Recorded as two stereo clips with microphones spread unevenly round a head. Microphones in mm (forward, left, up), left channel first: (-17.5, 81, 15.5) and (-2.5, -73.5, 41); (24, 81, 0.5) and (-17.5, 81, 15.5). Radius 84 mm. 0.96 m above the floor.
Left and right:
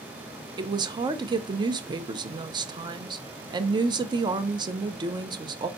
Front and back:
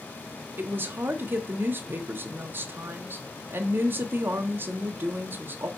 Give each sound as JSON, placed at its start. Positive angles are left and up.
{"t": 0.6, "sound": "a woman speaking", "azimuth_deg": -140, "distance_m": 0.5}